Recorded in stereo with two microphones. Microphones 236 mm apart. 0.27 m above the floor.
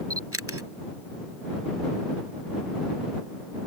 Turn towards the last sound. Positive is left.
turn(degrees=-75)  # may be behind; listen again after turning